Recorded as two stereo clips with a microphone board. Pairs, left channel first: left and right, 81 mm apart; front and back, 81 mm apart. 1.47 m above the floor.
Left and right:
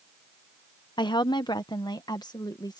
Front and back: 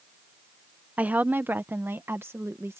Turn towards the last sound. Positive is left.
turn(degrees=125)